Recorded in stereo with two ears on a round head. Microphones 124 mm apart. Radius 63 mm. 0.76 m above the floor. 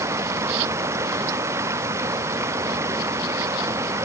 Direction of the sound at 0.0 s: 20° right (ahead or behind).